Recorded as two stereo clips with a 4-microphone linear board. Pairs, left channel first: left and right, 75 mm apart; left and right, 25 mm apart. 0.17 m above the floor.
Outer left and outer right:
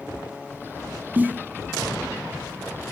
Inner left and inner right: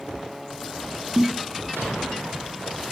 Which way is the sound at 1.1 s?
20° right (ahead or behind).